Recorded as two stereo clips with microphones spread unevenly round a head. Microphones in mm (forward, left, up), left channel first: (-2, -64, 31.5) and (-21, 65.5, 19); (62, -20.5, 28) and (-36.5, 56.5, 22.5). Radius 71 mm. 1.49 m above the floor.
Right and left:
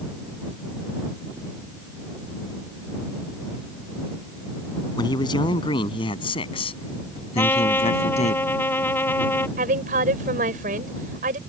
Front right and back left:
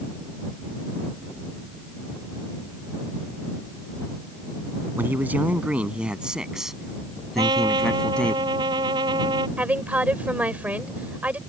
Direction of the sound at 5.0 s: 140° right.